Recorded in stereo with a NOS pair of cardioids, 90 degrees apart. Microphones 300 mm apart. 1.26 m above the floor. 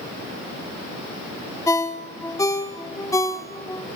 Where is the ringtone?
10° left, 2.0 m.